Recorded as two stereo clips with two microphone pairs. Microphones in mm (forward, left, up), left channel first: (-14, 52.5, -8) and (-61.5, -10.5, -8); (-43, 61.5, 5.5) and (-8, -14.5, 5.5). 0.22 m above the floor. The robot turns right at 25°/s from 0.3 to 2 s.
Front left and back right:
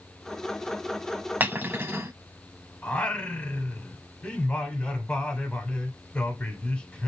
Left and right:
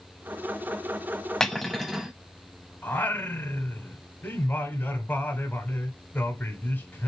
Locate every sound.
1.4 s cutlery clinking: 170° right, 0.6 m; by 2.1 s 155° right, 0.6 m
2.8 s singing: 110° left, 1.0 m